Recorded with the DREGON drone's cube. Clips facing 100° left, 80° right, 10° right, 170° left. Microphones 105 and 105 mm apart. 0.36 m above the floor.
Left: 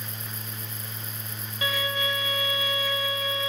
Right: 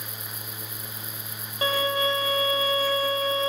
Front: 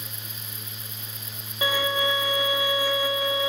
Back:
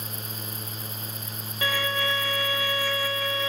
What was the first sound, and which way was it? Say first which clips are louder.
A violin: right 5 dB, front 3 dB; 75° right.